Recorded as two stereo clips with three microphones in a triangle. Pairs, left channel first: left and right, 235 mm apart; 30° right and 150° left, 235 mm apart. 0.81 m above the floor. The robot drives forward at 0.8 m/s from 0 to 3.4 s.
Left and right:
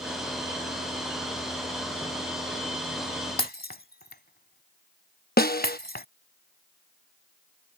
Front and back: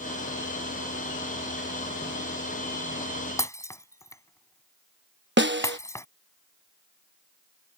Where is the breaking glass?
45° left.